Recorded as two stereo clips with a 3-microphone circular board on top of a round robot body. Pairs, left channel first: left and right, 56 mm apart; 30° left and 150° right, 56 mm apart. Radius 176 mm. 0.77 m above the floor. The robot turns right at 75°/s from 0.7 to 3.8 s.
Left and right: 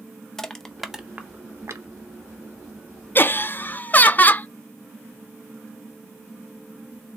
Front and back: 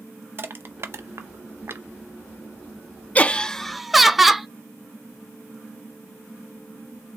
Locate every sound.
0.4 s crushing: 170° left, 0.7 m; by 1.9 s 100° right, 0.7 m
3.1 s laughter: 75° left, 0.5 m; by 4.5 s 125° left, 0.5 m